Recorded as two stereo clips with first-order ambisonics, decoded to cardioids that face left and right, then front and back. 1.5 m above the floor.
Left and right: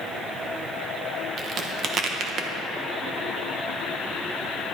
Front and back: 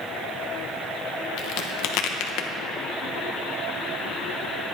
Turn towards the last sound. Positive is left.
turn(degrees=-30)